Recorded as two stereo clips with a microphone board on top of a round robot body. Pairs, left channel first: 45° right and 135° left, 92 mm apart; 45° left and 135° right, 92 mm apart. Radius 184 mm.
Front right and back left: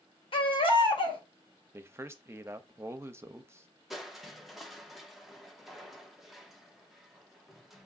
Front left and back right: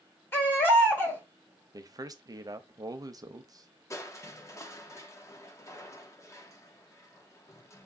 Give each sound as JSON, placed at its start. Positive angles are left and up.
{"t": 0.3, "sound": "a baby crying", "azimuth_deg": -20, "distance_m": 1.5}
{"t": 1.7, "sound": "a man speaking", "azimuth_deg": -170, "distance_m": 0.8}
{"t": 3.9, "sound": "crushing", "azimuth_deg": 50, "distance_m": 1.1}